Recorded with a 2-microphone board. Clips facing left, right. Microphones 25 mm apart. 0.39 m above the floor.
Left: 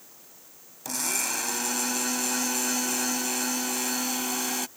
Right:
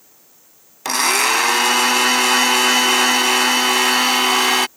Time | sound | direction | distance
0.8 | a blender | 80° right | ?